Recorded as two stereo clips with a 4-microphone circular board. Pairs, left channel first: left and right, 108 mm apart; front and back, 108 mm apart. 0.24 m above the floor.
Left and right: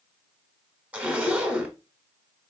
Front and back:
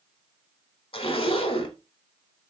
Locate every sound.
0.9 s a zipper: 15° right, 1.2 m